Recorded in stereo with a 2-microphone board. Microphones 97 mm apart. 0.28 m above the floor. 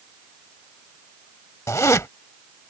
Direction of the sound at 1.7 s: 35° left (ahead or behind).